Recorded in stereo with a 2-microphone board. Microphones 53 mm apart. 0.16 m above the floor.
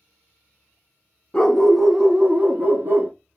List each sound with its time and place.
1.3 s a dog barking: 15° left (ahead or behind), 0.7 m; by 3.1 s 55° right (ahead or behind), 0.8 m